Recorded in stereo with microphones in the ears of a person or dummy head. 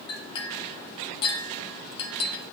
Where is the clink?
30° left (ahead or behind), 1.0 m.